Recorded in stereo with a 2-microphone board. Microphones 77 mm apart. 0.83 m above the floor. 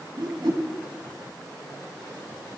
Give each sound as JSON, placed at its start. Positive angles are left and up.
{"t": 0.2, "sound": "a whoosh", "side_deg": -70, "distance_m": 2.5}